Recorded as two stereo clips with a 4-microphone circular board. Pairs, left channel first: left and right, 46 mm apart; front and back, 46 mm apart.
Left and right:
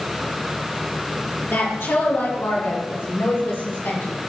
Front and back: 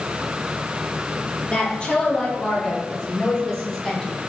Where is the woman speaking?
65° left, 4 m; by 4.1 s 80° left, 5.5 m.